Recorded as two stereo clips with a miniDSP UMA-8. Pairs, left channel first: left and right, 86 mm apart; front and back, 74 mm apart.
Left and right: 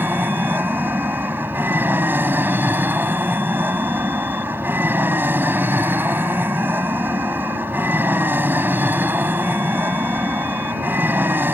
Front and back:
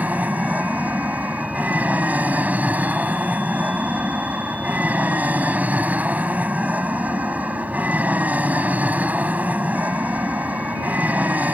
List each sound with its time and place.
0.0 s an aircraft: 130° right